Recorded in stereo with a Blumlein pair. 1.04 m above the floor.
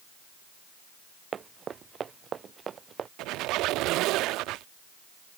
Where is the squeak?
40° right.